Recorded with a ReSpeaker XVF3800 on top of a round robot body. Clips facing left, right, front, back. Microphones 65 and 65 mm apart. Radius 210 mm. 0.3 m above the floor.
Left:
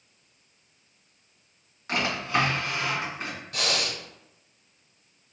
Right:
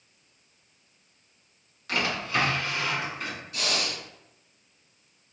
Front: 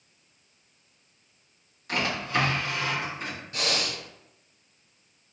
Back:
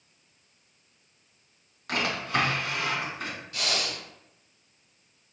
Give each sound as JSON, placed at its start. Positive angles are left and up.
{"t": 1.9, "sound": "a drawer", "azimuth_deg": 150, "distance_m": 1.8}
{"t": 3.5, "sound": "breathing", "azimuth_deg": 60, "distance_m": 0.7}